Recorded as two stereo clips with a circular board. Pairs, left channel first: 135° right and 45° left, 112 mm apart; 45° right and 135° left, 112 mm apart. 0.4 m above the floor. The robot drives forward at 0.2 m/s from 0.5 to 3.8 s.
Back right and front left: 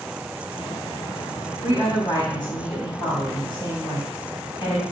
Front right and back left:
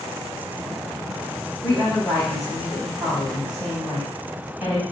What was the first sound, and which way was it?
A woman speaking, 130° right.